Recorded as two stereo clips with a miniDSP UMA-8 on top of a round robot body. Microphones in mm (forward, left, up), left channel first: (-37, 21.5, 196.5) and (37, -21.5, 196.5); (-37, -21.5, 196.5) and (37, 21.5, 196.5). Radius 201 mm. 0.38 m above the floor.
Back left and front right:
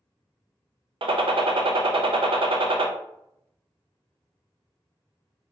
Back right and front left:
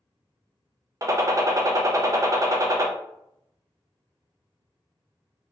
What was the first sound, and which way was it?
A gunshot, 20° right.